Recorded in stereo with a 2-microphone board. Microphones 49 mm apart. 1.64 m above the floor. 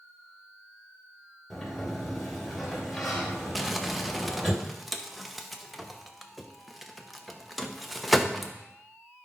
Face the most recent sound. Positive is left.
turn(degrees=0)  # may be behind; listen again after turning